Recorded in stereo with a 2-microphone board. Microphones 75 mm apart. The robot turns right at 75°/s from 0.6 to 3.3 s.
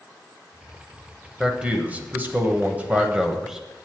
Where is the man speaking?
5° right (ahead or behind), 0.9 m; by 3.7 s 10° right (ahead or behind), 0.9 m.